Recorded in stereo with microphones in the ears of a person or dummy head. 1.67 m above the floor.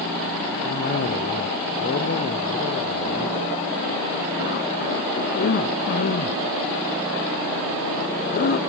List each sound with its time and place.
0.6 s a cough: 55° left (ahead or behind), 0.9 m